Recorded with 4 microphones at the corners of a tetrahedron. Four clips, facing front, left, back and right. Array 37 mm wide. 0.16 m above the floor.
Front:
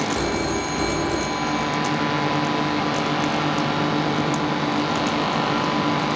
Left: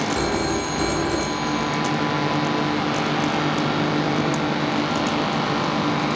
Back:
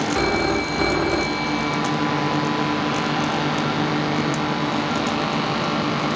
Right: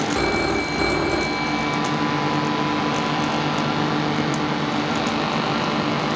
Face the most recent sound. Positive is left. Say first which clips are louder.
# right 2 dB, back 3 dB
turn(degrees=-150)